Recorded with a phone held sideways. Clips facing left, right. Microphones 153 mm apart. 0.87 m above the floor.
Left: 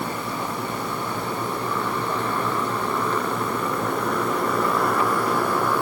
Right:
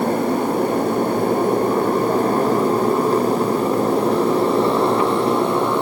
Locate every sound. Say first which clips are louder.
0.0 s a motorcycle: right 10 dB; 50° right (ahead or behind); by 5.8 s 20° right (ahead or behind)